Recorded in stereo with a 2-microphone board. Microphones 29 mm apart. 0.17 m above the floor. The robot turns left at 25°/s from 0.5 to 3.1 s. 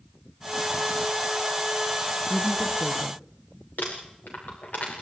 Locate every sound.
2.3 s a woman speaking: 20° right (ahead or behind), 2 m; by 3.2 s 10° right (ahead or behind), 2 m
3.8 s crumpling: 75° left (ahead or behind), 9 m